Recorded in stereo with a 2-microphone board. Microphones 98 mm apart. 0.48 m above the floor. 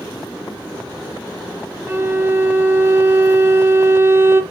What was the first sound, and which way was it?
A violin, 25° right (ahead or behind).